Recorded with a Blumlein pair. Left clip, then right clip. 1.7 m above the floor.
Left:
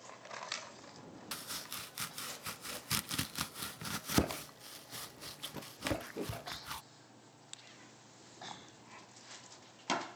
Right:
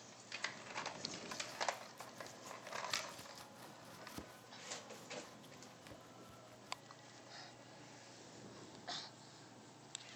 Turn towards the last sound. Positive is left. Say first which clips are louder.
# right 1 dB
turn(degrees=40)